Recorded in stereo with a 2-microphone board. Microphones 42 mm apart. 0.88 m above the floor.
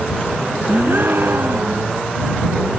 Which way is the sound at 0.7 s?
60° right (ahead or behind).